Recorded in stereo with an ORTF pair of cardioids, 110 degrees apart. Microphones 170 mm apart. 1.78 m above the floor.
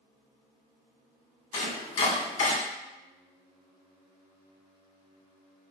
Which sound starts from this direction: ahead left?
Chopping, at 1.5 s.